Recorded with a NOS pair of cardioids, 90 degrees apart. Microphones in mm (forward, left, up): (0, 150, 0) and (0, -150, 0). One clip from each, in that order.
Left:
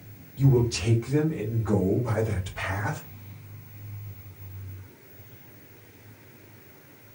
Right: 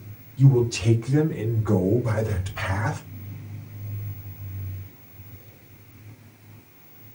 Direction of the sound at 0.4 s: Straight ahead.